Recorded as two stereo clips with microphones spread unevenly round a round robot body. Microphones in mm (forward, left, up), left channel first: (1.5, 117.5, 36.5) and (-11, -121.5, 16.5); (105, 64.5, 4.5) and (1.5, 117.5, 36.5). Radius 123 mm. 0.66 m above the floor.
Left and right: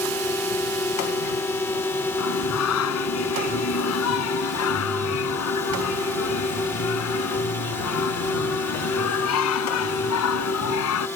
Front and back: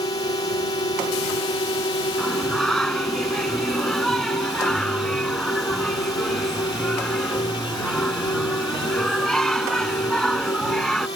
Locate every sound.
0.0 s a drone: 5° left
2.2 s singing: 60° left